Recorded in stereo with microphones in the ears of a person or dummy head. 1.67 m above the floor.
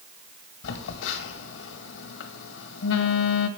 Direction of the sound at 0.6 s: 70° left (ahead or behind).